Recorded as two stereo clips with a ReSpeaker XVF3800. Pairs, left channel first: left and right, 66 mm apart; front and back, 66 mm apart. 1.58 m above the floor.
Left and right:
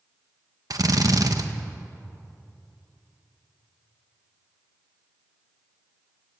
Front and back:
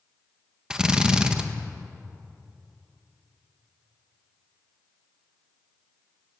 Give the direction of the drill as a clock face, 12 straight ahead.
3 o'clock.